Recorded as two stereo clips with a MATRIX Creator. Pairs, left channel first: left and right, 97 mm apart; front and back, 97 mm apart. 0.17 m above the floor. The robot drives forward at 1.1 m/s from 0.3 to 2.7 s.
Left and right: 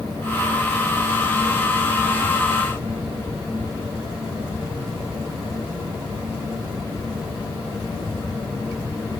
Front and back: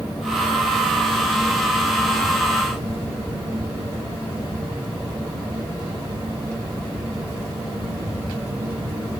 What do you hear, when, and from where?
Only background noise.